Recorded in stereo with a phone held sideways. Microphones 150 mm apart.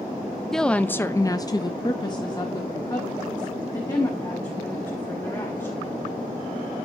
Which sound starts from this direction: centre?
A woman speaking, at 0.5 s.